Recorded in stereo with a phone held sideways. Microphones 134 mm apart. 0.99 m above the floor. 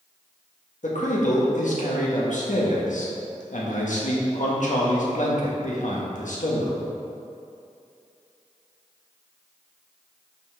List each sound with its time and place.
0.8 s a man speaking: 70° left (ahead or behind), 1.4 m